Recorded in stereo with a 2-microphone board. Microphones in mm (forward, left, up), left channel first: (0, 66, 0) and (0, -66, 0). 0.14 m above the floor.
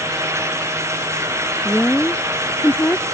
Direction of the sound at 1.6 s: 10° left (ahead or behind).